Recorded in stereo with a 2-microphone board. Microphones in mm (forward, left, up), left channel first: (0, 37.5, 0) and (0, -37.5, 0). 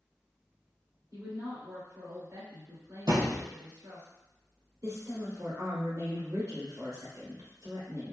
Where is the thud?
70° right (ahead or behind), 1.5 m.